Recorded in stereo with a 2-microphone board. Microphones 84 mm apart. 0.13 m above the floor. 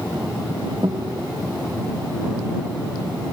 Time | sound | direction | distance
0.8 | a guitar | 60° right (ahead or behind) | ?